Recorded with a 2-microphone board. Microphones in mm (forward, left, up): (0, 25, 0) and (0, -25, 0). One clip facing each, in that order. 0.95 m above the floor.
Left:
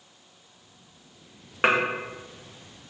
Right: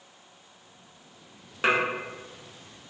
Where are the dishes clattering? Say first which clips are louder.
Left 2 dB; 35° left (ahead or behind), 0.5 m.